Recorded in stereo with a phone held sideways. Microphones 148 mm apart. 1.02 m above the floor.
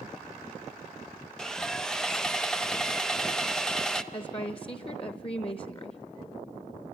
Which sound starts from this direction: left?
A woman speaking, at 4.1 s.